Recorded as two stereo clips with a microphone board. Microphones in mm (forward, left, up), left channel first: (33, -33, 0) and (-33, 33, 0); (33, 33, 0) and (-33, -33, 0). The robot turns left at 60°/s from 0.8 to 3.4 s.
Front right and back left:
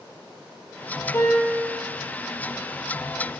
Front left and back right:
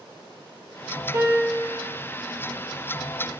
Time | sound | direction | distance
1.1 | a piano | 100° right | 0.8 m